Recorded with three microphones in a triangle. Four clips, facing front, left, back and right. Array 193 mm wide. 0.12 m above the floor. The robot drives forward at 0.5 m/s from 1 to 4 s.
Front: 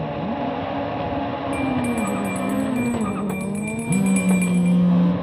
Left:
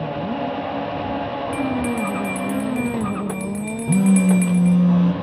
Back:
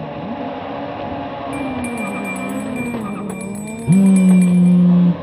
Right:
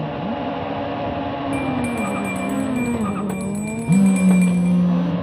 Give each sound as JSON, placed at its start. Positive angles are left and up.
{"t": 1.5, "sound": "a bell", "azimuth_deg": 60, "distance_m": 2.0}
{"t": 3.9, "sound": "a phone buzzing", "azimuth_deg": -170, "distance_m": 0.8}